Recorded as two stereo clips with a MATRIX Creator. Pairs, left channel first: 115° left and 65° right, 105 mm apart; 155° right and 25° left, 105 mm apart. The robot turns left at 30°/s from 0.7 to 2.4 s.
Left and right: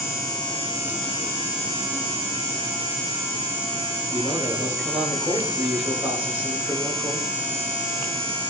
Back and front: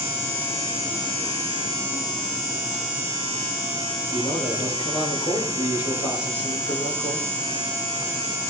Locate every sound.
4.1 s a man speaking: 150° right, 7 m